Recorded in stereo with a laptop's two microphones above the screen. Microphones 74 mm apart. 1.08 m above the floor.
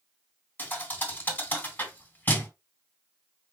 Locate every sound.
0.6 s a thud: 25° left (ahead or behind), 1.9 m